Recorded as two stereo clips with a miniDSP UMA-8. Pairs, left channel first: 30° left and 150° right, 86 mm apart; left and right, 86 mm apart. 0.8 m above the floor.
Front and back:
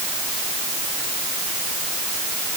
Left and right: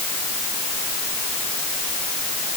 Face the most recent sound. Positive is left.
No sound to turn to.